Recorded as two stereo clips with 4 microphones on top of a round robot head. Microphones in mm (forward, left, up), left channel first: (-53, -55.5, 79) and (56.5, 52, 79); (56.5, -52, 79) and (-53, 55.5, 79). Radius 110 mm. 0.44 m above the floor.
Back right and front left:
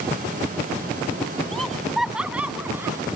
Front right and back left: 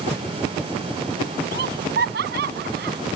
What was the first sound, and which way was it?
Laughter, 140° left.